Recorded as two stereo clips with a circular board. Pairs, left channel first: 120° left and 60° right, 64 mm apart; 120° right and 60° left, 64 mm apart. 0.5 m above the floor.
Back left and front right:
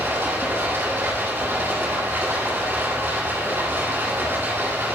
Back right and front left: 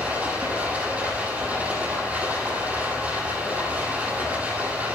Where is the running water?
5° right, 8 m.